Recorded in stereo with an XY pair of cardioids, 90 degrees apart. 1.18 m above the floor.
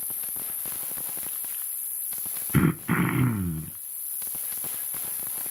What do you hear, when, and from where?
0.0 s an insect: 40° left, 3 m
2.5 s throat clearing: 5° right, 0.7 m